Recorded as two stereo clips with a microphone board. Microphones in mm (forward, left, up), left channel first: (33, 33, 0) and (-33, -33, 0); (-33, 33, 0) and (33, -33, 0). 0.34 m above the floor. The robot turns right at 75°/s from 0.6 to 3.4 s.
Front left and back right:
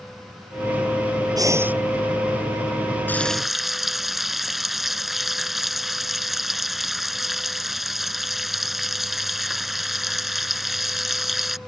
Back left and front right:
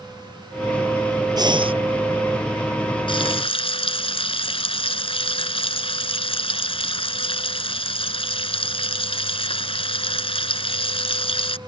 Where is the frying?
115° left; by 11.6 s 135° left.